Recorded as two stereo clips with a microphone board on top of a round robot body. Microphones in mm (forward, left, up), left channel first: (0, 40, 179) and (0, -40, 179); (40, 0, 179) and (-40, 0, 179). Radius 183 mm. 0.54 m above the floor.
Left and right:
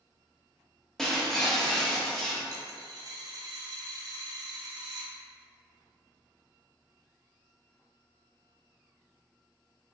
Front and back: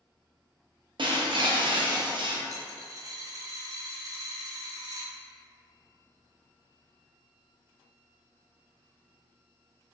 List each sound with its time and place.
1.0 s breaking glass: 175° left, 0.7 m
2.5 s a dropped coin: 130° right, 0.6 m